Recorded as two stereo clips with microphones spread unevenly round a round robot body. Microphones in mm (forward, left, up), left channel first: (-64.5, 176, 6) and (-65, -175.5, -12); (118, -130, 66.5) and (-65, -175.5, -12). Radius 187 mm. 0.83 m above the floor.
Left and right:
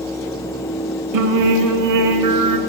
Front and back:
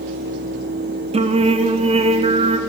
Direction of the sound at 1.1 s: 120° right.